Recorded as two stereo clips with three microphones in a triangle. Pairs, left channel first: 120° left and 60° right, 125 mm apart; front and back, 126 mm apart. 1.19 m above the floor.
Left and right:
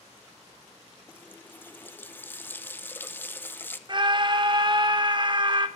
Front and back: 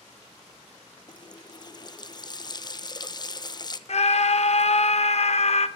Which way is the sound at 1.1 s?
50° left.